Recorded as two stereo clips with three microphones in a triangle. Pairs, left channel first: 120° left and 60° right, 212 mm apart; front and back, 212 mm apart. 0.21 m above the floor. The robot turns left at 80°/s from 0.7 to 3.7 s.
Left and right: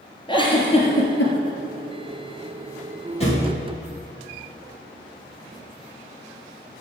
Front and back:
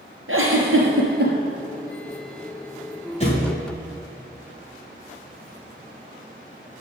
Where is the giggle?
175° right, 3 m; by 1.3 s 135° left, 3 m.